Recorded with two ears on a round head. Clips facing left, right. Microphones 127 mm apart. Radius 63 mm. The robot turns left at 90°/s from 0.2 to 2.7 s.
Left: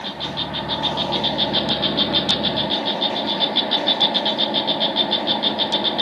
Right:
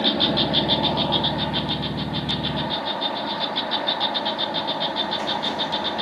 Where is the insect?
105° right; by 6.0 s 30° left.